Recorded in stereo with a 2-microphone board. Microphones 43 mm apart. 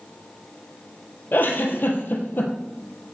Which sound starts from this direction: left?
A giggle, at 1.3 s.